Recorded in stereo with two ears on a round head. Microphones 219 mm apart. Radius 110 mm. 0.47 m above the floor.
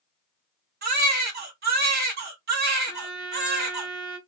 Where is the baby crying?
40° right (ahead or behind), 1.0 m.